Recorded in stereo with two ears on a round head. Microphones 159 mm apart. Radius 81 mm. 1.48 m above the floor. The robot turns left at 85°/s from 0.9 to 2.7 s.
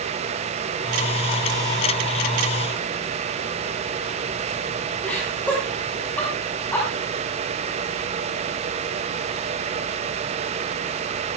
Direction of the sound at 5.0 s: 10° left (ahead or behind).